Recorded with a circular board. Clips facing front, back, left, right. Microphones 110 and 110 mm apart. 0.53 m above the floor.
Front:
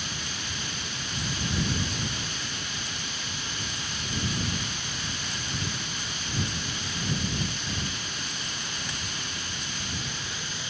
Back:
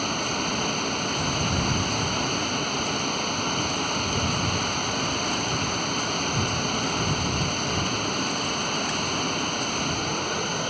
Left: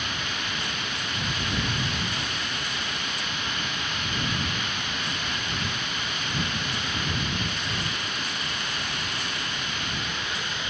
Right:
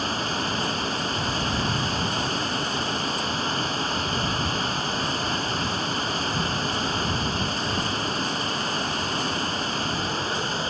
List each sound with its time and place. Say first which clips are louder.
0.0 s running water: back 11 dB, right 6 dB; 145° right